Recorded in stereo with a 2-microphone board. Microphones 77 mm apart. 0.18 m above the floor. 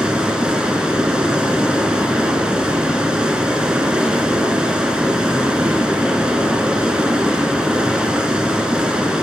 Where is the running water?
10° right (ahead or behind), 0.9 m.